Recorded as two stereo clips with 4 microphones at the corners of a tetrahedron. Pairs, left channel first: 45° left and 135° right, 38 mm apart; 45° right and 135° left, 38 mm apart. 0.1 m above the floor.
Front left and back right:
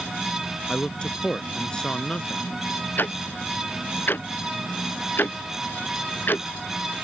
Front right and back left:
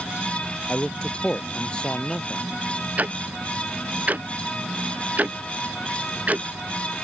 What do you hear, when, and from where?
0.7 s a man speaking: 5° right
3.0 s ticking: 85° left